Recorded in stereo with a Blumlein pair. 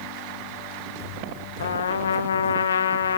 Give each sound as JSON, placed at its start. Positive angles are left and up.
{"t": 1.6, "sound": "a trumpet", "azimuth_deg": 65, "distance_m": 1.1}